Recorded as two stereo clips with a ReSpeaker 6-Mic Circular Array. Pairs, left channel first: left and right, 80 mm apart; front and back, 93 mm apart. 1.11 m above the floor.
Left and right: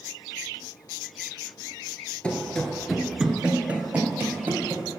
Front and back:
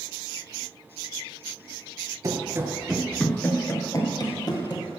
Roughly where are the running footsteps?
Behind.